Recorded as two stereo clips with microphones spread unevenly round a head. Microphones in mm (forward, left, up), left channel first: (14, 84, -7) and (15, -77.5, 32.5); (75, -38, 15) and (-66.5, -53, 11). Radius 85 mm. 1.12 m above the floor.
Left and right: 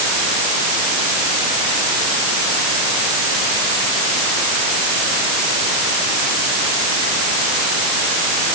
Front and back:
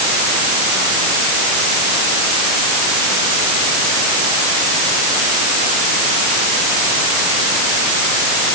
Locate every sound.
Only background noise.